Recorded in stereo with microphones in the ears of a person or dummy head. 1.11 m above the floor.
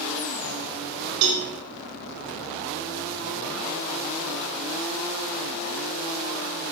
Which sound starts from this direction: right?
A cowbell, at 1.2 s.